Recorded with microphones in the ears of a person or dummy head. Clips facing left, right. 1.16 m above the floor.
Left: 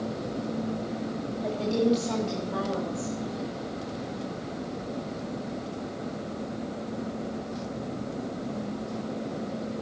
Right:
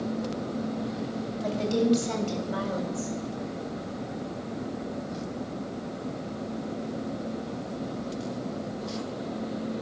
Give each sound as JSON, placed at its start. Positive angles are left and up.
{"t": 1.4, "sound": "a woman speaking", "side_deg": -30, "distance_m": 2.5}